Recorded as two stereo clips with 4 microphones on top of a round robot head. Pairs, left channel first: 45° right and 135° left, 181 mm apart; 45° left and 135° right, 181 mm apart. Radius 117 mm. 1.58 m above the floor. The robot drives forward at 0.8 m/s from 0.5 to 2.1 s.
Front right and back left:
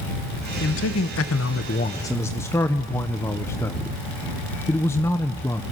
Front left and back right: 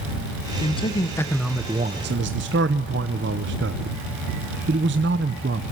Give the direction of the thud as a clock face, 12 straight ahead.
No thud in this recording.